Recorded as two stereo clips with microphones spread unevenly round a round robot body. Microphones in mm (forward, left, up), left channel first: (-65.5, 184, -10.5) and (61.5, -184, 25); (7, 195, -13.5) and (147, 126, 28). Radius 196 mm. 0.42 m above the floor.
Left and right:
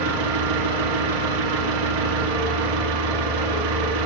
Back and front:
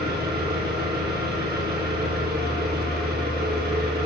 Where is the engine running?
100° right, 0.8 m.